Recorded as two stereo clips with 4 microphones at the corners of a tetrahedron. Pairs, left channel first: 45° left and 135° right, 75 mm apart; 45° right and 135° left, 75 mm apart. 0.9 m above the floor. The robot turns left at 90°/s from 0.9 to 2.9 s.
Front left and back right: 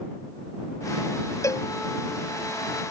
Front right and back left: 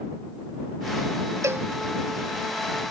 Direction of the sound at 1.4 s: 90° left.